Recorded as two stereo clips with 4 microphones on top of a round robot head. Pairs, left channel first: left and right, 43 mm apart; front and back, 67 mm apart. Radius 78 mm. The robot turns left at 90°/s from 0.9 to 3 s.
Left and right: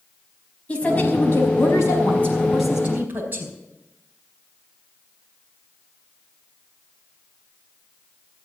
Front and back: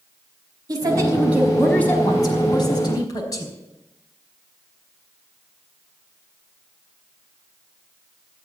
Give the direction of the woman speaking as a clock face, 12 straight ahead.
7 o'clock.